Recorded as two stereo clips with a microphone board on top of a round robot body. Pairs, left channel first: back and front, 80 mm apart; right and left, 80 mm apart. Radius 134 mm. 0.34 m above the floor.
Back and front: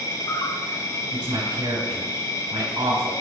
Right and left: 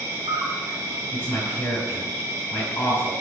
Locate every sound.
0.0 s an insect: 140° left, 1.8 m
1.1 s a man speaking: 25° right, 3.5 m